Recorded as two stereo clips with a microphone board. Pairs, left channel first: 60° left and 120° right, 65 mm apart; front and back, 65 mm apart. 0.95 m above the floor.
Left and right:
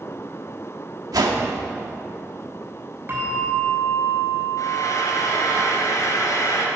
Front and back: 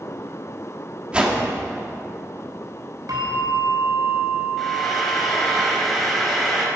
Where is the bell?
170° right, 3 m.